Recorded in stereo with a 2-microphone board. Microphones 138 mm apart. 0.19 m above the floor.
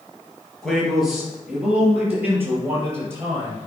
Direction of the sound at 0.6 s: 5° left (ahead or behind).